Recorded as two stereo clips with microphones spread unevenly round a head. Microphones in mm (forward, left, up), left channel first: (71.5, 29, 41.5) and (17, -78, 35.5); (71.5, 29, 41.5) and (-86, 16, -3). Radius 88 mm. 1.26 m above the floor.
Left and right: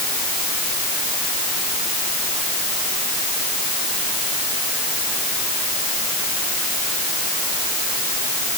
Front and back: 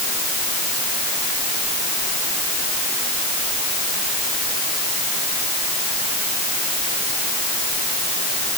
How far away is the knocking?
No knocking in this recording.